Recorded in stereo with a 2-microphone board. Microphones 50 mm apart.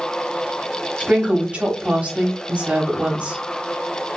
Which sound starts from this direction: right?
A woman speaking, at 1.0 s.